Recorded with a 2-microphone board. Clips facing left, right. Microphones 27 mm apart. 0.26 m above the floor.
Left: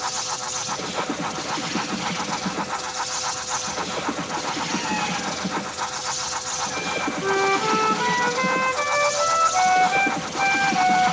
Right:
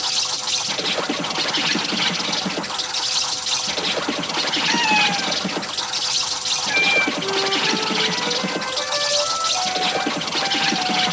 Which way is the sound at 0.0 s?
75° right (ahead or behind).